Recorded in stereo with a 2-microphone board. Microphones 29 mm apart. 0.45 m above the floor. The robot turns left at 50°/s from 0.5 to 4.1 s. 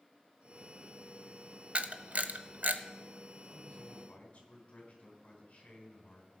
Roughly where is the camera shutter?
Right.